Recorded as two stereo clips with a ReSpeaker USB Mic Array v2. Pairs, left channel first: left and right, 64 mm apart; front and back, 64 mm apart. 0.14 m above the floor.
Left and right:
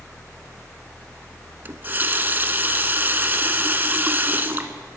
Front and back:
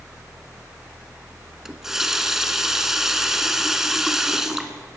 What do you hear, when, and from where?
1.6 s a running tap: 100° right, 0.9 m